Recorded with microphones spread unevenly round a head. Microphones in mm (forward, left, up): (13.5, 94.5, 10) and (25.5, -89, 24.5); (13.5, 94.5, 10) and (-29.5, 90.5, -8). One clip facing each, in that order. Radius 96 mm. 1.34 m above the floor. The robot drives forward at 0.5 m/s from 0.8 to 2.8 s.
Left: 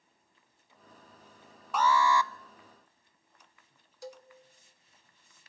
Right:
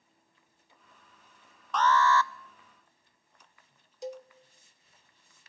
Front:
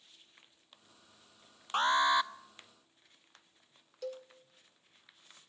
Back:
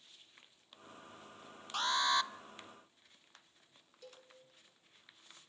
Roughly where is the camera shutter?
No camera shutter in this recording.